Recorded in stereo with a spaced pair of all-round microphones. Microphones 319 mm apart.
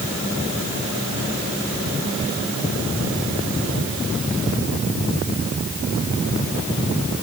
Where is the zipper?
No zipper in this recording.